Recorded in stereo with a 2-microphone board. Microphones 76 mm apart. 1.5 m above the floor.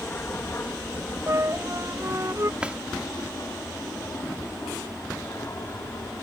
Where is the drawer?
15° right (ahead or behind).